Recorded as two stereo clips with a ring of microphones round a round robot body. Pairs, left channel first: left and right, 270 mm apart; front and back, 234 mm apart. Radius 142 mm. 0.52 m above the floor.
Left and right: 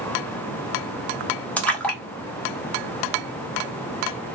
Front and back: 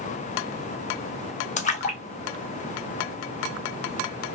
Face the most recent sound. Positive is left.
turn(degrees=10)